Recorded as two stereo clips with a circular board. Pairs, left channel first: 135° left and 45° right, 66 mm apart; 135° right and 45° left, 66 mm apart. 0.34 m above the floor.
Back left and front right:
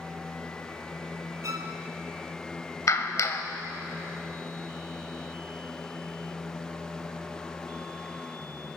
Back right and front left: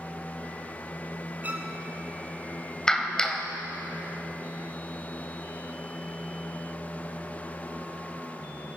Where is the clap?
150° left, 1.2 m.